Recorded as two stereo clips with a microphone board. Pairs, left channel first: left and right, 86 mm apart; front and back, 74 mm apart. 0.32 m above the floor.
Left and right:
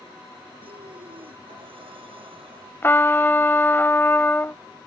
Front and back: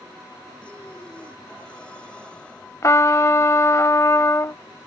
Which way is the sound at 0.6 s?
75° right.